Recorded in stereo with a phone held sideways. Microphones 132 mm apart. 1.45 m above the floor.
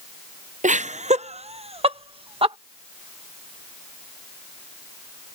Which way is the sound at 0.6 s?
65° right (ahead or behind).